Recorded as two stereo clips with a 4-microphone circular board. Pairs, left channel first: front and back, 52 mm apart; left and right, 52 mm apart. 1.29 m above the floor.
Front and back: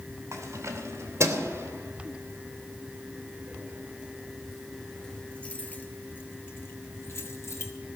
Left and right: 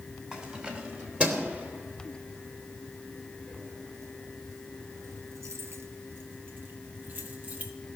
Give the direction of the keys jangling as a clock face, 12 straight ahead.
5 o'clock.